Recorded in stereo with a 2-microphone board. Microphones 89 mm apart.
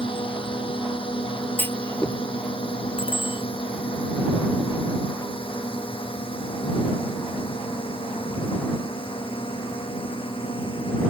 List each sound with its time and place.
0.0 s a drone: 75° left (ahead or behind); by 11.1 s 85° left
1.6 s a clunk: 25° left (ahead or behind)
3.0 s a bicycle bell: 70° left (ahead or behind)